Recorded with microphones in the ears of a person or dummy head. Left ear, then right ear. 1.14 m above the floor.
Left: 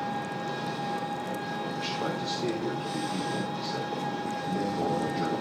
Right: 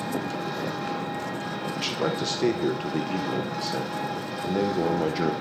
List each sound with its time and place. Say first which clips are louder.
0.0 s an engine running: right 2 dB; 75° right (ahead or behind), 5 m
1.8 s a man speaking: right 6 dB; 60° right (ahead or behind), 0.5 m